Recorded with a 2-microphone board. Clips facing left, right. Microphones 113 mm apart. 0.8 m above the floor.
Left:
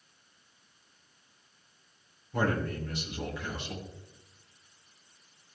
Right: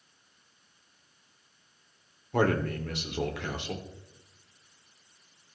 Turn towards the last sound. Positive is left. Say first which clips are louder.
# right 4 dB
turn(degrees=-75)  # may be behind; listen again after turning